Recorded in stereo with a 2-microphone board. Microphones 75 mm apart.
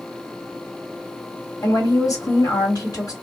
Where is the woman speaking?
50° left (ahead or behind), 1.9 m.